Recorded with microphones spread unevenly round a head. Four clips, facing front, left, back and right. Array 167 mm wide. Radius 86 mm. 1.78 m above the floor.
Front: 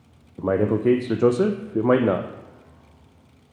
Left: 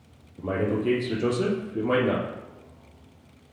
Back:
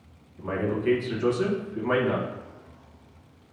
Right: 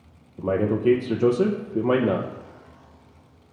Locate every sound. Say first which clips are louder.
0.4 s a man speaking: right 4 dB, front 7 dB; 20° right, 0.6 m